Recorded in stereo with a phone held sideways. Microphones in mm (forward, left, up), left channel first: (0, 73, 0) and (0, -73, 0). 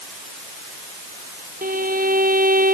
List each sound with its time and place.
1.6 s a violin: 75° right (ahead or behind)